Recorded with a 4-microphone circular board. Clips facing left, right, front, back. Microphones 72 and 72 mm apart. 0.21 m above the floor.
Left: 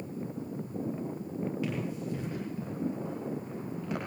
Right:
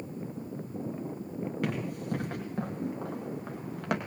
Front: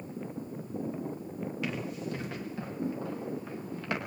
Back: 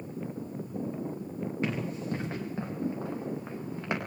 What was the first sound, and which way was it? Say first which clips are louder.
Running footsteps: right 1 dB, back 4 dB; 125° right.